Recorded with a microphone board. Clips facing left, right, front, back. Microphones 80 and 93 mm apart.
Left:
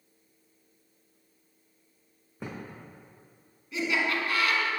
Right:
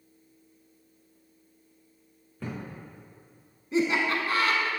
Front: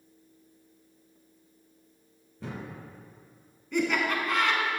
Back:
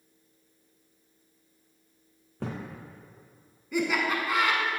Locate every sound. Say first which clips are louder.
2.4 s a thud: right 2 dB, back 3 dB; 160° left, 2 m
3.7 s laughter: right 3 dB, even; 100° right, 1.2 m